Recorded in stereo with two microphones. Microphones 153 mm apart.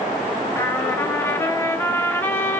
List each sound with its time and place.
0.6 s a trumpet: 15° left (ahead or behind), 0.8 m